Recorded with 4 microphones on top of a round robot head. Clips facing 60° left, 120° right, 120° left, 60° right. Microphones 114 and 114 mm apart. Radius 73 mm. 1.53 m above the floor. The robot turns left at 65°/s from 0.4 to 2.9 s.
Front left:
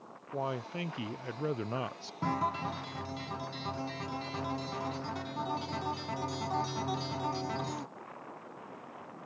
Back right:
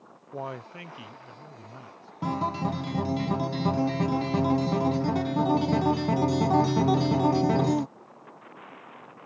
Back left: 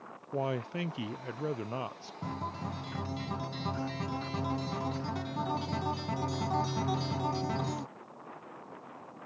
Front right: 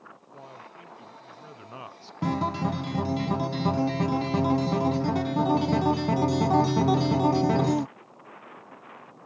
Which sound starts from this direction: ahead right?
A guitar, at 2.2 s.